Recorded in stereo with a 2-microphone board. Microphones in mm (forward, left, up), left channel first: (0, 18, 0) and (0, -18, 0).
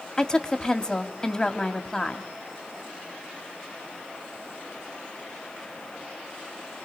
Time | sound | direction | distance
0.2 | a woman speaking | 20° left (ahead or behind) | 1.4 m